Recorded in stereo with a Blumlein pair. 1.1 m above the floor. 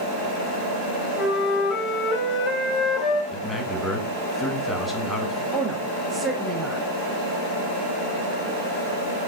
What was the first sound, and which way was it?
A flute, 20° left.